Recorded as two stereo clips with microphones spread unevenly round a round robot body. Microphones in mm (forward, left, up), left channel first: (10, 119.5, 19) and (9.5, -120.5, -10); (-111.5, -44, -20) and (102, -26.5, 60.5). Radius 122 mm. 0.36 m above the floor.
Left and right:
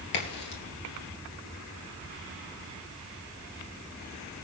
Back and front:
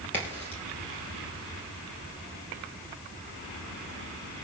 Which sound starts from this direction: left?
A crack, at 0.1 s.